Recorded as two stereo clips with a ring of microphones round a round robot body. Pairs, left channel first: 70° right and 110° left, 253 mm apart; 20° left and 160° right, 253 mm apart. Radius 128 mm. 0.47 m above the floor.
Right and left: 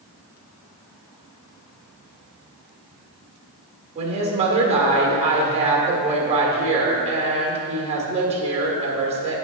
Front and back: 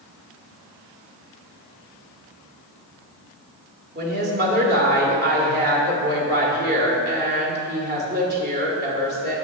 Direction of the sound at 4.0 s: 170° left.